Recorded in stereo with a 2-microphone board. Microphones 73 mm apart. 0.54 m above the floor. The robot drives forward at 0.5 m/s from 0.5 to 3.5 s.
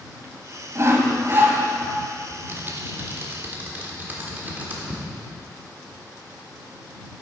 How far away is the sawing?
About 1.1 m.